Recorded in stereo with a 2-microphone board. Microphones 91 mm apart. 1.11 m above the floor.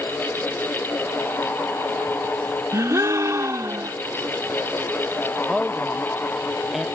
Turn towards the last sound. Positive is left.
turn(degrees=0)  # may be behind; listen again after turning